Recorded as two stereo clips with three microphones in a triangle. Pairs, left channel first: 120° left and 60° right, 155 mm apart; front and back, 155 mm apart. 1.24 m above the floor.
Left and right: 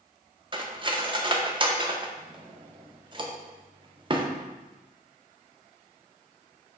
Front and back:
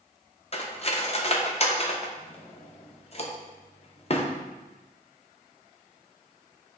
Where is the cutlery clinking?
20° right, 0.5 m.